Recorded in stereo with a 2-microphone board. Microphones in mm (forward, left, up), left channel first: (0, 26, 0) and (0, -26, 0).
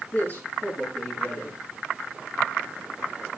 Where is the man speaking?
35° left (ahead or behind), 8 m.